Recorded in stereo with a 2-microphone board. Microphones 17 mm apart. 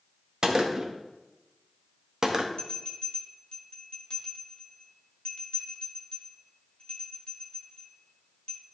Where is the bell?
50° left (ahead or behind), 2.0 m.